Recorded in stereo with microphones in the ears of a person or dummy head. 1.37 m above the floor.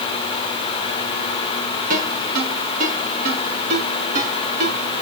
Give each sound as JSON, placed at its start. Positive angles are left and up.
{"t": 1.9, "sound": "a ringtone", "side_deg": -50, "distance_m": 5.5}